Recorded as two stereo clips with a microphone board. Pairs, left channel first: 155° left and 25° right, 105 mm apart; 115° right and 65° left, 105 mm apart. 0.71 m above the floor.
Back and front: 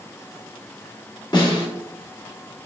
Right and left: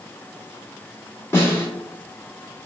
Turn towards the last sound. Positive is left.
turn(degrees=-170)